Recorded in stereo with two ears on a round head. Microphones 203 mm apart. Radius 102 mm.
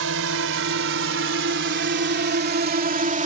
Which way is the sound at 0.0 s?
65° right (ahead or behind).